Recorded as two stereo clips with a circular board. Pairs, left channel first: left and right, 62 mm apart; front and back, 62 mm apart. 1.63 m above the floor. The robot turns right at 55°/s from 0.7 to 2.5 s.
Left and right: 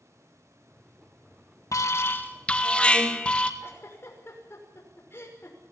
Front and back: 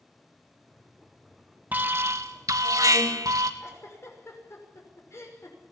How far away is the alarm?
About 2 m.